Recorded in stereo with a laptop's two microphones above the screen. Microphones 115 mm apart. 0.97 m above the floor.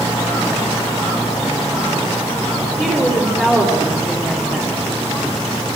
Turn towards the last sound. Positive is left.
turn(degrees=10)  # may be behind; listen again after turning